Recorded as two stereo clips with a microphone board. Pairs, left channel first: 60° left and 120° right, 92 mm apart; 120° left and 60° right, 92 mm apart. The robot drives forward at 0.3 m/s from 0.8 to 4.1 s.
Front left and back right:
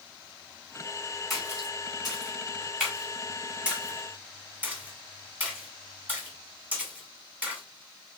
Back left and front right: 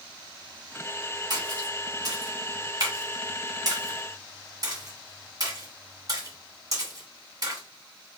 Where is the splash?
30° right, 2 m; by 7.6 s 55° right, 1.5 m.